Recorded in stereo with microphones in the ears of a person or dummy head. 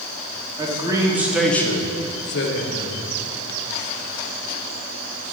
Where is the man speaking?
25° right (ahead or behind), 2.5 m; by 3.0 s 70° left (ahead or behind), 1.9 m.